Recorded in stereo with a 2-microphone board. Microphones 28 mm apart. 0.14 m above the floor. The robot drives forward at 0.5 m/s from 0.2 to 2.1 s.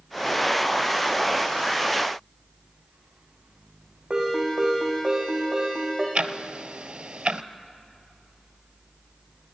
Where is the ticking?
30° right (ahead or behind), 0.7 m.